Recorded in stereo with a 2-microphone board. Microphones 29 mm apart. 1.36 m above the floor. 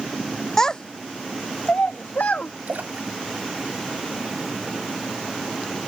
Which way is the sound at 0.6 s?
15° left (ahead or behind).